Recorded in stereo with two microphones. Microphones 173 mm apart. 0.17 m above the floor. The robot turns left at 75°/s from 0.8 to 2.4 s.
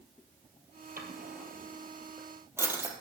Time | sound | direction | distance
1.0 | a drawer | 55° right (ahead or behind) | 2.5 m